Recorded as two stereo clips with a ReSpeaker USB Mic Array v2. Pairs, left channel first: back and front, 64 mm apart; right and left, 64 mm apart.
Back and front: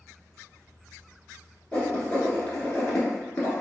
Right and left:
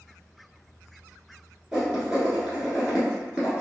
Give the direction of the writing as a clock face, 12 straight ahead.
7 o'clock.